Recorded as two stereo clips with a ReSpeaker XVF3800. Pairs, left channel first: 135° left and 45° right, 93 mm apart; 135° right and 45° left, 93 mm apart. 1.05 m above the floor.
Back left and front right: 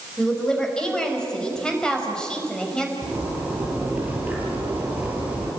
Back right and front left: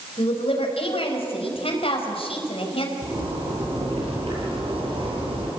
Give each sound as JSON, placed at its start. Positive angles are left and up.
{"t": 0.2, "sound": "a woman speaking", "azimuth_deg": -145, "distance_m": 4.5}
{"t": 3.0, "sound": "a zipper", "azimuth_deg": 25, "distance_m": 8.5}